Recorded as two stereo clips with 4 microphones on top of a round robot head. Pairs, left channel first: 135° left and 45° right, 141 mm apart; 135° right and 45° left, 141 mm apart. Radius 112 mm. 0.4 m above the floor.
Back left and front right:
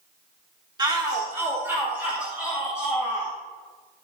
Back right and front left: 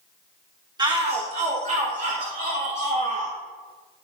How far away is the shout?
About 1.6 m.